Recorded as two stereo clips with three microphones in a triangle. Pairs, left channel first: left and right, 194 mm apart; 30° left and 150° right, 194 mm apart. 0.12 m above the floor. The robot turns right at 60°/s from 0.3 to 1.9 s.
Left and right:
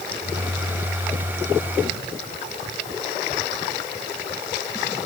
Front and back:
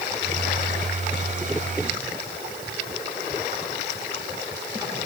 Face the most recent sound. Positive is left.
No sound to turn to.